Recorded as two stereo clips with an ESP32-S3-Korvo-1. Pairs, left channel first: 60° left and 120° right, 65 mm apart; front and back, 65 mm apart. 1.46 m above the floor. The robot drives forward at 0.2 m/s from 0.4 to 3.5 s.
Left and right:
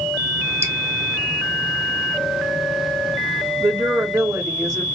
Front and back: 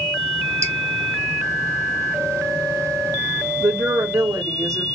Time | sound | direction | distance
0.6 | dripping | 155° right | 2.0 m
3.6 | a woman speaking | 150° right | 1.5 m